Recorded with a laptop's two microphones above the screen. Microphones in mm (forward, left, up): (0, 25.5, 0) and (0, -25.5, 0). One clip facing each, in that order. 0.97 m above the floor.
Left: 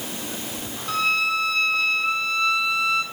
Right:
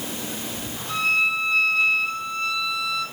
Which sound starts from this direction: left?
A violin, at 0.9 s.